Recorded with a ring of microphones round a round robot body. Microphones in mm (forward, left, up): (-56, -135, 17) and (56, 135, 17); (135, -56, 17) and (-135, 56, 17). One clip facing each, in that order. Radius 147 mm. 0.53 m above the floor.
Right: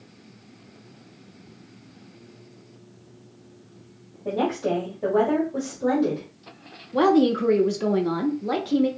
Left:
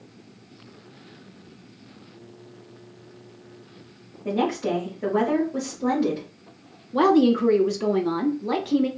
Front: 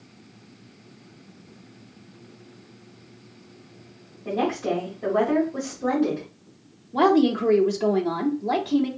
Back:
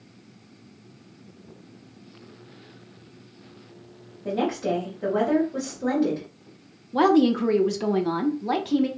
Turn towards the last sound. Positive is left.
turn(degrees=150)